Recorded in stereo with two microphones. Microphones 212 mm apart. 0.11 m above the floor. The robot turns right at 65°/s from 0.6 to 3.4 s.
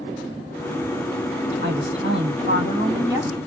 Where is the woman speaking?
115° right, 2.5 m; by 3.4 s 5° right, 2.5 m.